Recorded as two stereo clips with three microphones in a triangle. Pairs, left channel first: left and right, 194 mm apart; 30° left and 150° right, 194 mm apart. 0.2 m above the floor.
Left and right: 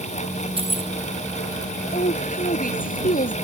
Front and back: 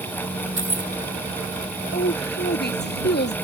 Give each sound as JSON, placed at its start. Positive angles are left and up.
{"t": 0.6, "sound": "keys jangling", "azimuth_deg": -150}
{"t": 1.9, "sound": "a woman speaking", "azimuth_deg": 50}